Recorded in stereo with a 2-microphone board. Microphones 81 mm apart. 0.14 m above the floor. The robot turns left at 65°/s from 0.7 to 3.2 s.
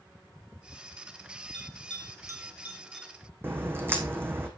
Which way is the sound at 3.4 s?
25° right (ahead or behind).